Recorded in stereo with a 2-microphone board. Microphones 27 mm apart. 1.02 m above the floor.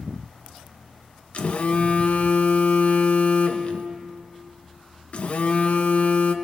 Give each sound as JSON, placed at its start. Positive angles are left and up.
{"t": 1.3, "sound": "a phone buzzing", "side_deg": 55, "distance_m": 1.2}